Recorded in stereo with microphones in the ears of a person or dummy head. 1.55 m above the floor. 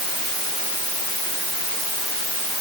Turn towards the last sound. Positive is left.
No sound to turn to.